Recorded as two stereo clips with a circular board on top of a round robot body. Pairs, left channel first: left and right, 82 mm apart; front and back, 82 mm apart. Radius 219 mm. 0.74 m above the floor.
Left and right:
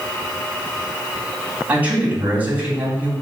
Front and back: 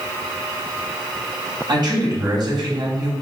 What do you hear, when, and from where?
1.7 s a man speaking: 160° right, 3.5 m